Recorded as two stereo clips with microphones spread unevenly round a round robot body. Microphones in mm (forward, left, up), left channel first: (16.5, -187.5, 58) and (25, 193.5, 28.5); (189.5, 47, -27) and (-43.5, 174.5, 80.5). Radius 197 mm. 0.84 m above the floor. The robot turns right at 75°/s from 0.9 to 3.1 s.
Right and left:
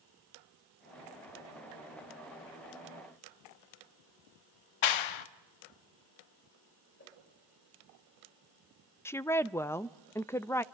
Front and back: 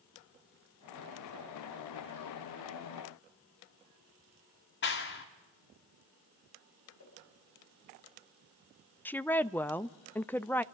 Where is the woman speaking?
5° right, 0.5 m.